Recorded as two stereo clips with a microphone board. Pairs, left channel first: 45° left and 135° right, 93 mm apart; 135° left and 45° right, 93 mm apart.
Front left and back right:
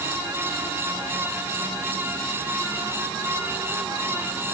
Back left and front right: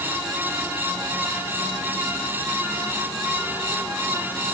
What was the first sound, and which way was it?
Only background noise.